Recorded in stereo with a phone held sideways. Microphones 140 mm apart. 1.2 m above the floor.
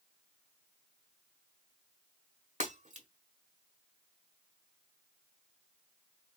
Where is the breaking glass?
60° right (ahead or behind), 1.5 m.